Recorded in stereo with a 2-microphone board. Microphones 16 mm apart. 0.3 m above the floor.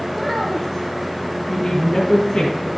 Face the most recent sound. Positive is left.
turn(degrees=65)  # may be behind; listen again after turning